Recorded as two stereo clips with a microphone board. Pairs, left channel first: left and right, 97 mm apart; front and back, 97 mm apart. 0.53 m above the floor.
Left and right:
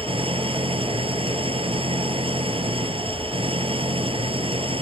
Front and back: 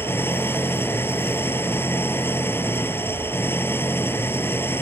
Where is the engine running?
65° right.